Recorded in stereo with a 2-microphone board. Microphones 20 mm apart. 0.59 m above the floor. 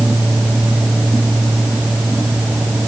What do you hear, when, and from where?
Only background noise.